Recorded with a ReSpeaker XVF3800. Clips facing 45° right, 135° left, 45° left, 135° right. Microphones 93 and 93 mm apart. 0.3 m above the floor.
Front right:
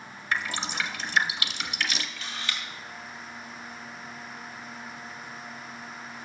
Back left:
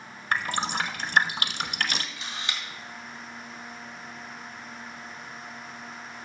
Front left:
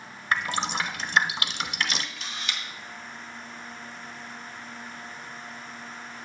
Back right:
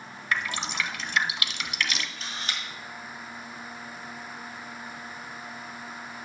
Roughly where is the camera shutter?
Behind.